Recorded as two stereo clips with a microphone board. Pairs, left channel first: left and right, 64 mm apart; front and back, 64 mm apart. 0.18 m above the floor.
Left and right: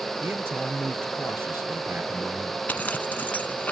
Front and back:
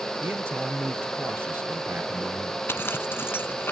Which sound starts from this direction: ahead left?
A zipper, at 2.7 s.